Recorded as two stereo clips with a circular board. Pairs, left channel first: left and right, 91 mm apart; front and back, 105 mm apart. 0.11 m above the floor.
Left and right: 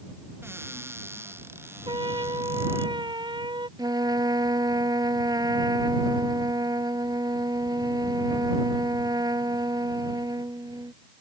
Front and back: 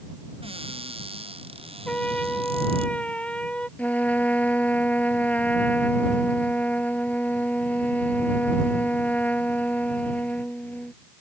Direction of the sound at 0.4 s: 155° right.